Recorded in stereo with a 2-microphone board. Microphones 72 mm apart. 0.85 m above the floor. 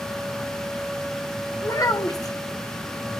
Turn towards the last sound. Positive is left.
turn(degrees=60)  # may be behind; listen again after turning